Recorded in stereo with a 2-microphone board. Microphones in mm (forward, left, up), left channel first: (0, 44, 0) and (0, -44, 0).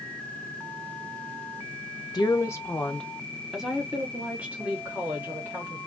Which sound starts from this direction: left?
A woman speaking, at 2.1 s.